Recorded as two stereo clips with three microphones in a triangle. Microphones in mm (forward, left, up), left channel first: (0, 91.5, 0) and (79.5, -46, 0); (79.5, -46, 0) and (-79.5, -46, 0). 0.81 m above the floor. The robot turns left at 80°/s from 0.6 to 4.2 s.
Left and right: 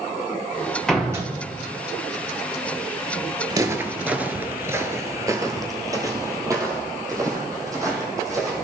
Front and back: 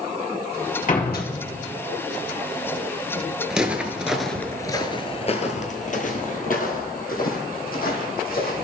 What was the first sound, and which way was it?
A door slam, 35° left.